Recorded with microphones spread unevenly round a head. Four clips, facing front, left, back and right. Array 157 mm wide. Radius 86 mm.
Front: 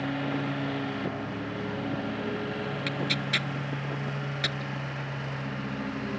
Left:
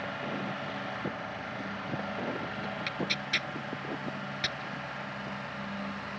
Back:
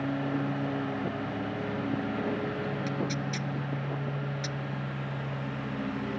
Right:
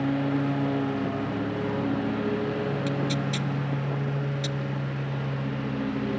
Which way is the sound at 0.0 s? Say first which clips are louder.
Right 10 dB, even; 100° right.